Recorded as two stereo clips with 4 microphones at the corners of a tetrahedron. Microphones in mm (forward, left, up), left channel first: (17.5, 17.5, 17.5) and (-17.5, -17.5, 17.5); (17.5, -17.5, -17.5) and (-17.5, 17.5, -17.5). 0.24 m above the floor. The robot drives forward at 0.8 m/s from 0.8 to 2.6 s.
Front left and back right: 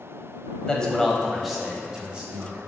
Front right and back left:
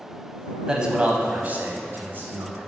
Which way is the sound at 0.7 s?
85° left.